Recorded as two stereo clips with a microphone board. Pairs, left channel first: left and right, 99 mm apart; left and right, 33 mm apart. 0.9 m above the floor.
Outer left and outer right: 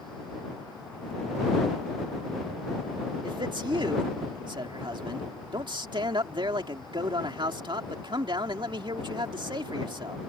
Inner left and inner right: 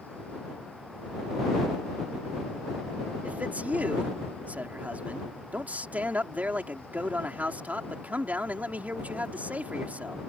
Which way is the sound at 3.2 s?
55° right (ahead or behind).